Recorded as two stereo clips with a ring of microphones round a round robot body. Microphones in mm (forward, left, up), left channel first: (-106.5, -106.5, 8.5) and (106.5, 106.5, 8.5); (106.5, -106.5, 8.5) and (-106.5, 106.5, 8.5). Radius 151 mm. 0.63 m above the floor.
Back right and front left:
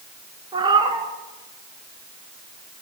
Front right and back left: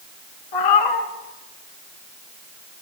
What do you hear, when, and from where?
0.5 s a cat meowing: 30° right, 2 m